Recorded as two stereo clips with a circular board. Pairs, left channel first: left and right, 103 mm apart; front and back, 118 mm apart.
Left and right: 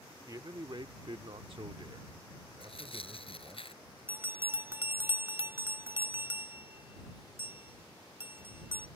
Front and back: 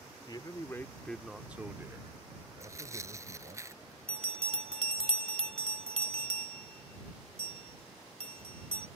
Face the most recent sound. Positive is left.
turn(degrees=-155)